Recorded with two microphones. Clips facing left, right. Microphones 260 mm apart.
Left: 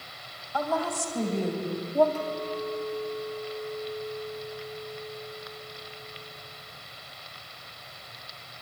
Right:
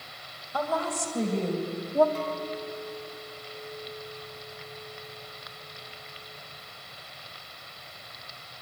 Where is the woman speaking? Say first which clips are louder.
Left 1 dB; 25° right (ahead or behind), 3.5 m; by 2.0 s 10° right (ahead or behind), 3 m.